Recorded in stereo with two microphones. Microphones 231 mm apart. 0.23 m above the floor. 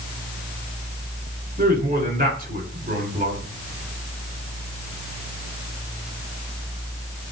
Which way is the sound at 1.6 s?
45° right (ahead or behind).